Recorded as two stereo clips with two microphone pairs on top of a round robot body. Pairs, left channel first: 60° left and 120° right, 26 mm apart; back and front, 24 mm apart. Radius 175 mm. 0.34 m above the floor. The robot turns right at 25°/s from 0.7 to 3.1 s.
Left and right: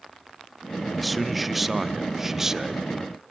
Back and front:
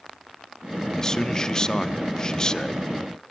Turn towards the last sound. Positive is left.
turn(degrees=-165)